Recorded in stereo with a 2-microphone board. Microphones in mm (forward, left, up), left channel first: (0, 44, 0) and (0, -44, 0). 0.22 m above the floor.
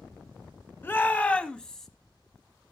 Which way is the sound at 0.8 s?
25° left (ahead or behind).